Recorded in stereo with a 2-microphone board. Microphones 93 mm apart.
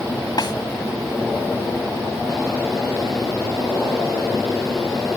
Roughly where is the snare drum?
Left.